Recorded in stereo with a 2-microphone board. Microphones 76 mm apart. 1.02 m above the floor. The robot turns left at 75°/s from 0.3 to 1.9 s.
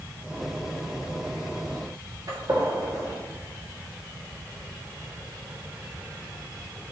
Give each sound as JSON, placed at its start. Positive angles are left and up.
{"t": 2.3, "sound": "a gunshot", "side_deg": -45, "distance_m": 2.5}